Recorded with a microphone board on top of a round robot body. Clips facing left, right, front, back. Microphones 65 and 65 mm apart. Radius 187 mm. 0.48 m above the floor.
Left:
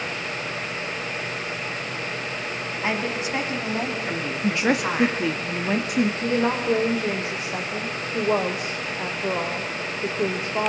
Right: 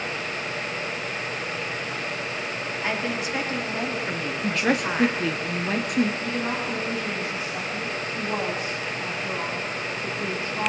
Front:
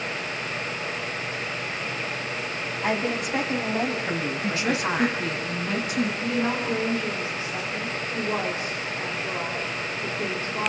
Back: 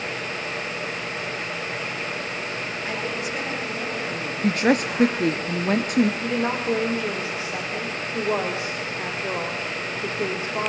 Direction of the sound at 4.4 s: 175° left.